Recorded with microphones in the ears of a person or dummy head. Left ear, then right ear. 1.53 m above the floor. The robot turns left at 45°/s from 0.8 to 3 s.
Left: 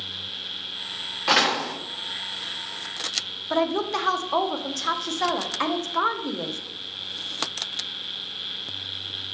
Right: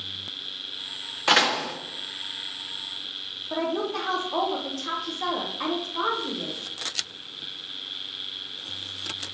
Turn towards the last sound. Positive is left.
turn(degrees=80)